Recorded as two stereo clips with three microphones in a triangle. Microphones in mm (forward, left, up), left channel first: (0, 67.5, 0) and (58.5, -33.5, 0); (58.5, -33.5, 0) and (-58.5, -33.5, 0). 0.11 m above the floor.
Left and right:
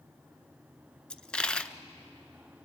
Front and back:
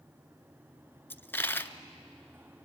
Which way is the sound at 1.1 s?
50° left.